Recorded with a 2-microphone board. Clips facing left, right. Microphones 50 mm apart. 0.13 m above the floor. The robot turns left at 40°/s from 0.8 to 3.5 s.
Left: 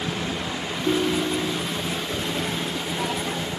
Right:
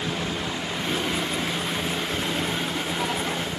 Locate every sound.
0.8 s a ringtone: 110° left; by 1.8 s 75° left